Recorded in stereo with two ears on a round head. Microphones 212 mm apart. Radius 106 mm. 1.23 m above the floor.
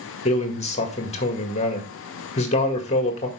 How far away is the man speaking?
About 1.9 m.